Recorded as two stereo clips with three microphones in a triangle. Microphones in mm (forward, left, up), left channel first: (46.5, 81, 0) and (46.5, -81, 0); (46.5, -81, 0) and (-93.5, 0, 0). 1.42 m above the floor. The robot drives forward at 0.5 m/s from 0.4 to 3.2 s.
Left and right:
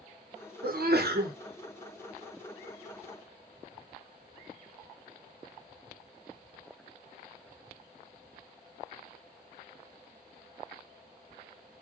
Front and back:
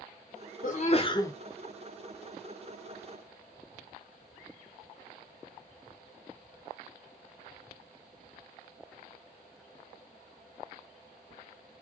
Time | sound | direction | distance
0.6 | a sneeze | 65° right | 0.6 m